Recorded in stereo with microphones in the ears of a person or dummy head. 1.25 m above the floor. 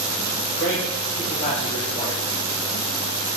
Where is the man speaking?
40° left (ahead or behind), 1.5 m.